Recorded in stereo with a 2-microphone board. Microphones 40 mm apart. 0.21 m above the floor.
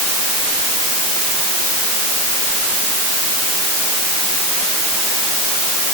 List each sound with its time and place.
Only background noise.